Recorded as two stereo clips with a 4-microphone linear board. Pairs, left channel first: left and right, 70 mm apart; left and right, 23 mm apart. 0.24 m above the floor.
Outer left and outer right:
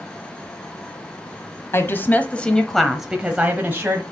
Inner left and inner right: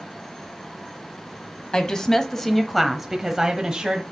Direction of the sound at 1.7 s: 35° left (ahead or behind).